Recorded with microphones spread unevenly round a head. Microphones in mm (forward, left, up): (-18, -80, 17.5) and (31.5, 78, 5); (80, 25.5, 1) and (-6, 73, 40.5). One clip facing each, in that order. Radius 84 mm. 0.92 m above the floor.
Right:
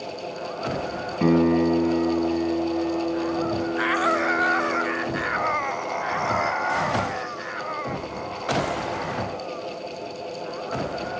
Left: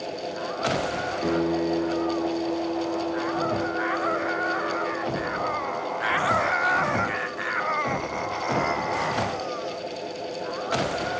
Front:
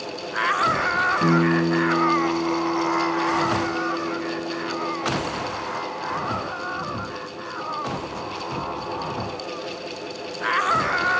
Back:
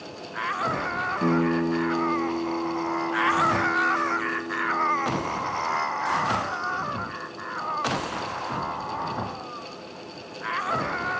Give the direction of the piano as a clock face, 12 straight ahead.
4 o'clock.